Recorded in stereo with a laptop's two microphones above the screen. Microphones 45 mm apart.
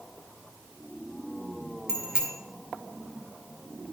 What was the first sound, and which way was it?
A bicycle bell, 15° right (ahead or behind).